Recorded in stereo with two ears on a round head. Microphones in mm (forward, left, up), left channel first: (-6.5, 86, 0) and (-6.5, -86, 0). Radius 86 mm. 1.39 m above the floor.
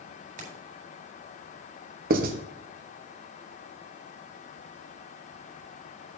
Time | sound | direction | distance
0.4 | keys jangling | 45° right (ahead or behind) | 5 m
2.1 | writing | 50° right (ahead or behind) | 1.2 m